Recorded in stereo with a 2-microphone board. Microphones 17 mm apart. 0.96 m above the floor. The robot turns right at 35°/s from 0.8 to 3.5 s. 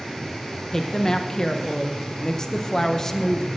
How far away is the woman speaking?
About 0.7 m.